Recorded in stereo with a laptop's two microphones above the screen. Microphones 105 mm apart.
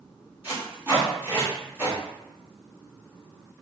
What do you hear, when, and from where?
0.4 s tape being pulled: 20° right (ahead or behind), 1.9 m